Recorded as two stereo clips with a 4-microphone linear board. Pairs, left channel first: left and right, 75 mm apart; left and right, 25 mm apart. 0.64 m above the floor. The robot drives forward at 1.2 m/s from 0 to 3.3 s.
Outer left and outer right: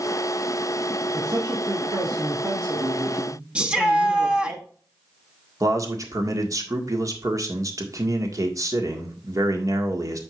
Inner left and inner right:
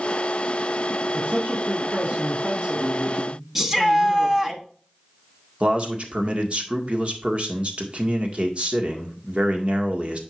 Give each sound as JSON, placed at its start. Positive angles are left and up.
{"t": 1.1, "sound": "a man speaking", "side_deg": -40, "distance_m": 2.5}
{"t": 3.5, "sound": "a shout", "side_deg": -15, "distance_m": 1.2}
{"t": 5.6, "sound": "a man speaking", "side_deg": -45, "distance_m": 1.7}